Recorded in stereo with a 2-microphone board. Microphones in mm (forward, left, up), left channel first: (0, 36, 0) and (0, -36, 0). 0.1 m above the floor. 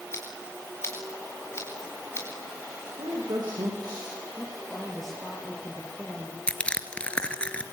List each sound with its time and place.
0.1 s scissors: 35° left (ahead or behind), 5 m
3.0 s a woman speaking: 65° right (ahead or behind), 7.5 m
4.4 s a woman speaking: 5° left (ahead or behind), 6 m
6.5 s crushing: 15° left (ahead or behind), 2.0 m